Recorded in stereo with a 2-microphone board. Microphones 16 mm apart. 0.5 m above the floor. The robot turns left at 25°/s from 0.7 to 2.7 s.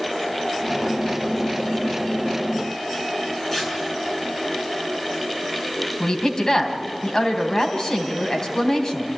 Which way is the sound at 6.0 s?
35° left (ahead or behind).